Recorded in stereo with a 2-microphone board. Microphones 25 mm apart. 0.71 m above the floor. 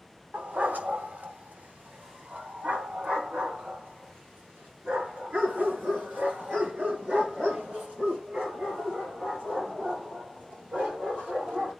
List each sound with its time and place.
0.3 s a dog barking: 80° right, 1.2 m; by 11.7 s 70° right (ahead or behind), 10 m